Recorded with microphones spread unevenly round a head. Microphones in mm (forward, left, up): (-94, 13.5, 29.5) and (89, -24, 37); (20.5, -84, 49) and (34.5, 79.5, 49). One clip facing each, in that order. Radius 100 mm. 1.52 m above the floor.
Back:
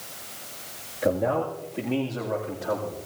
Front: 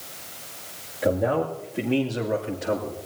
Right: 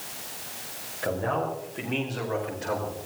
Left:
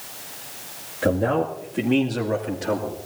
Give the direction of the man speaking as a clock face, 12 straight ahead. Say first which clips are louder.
Front 1 dB, left 7 dB; 9 o'clock.